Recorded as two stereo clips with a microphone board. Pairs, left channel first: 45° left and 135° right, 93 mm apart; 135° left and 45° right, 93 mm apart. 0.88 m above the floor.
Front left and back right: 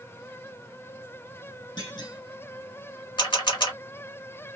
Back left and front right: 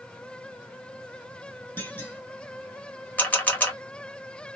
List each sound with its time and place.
1.8 s a clunk: 70° left, 1.4 m
3.2 s a camera shutter: 65° left, 1.3 m